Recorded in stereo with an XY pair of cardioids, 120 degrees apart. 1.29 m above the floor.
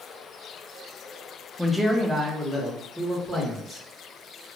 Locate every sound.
1.6 s a man speaking: straight ahead, 0.8 m